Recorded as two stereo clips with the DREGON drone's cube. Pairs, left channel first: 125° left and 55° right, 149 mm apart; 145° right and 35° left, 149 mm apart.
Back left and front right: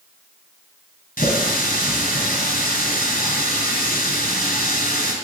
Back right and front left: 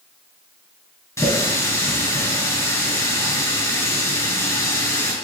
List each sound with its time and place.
1.2 s a running tap: 145° left, 4 m